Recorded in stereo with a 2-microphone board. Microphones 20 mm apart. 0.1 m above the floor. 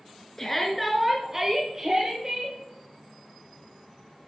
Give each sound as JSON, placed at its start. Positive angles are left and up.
{"t": 0.4, "sound": "a shout", "side_deg": 20, "distance_m": 1.1}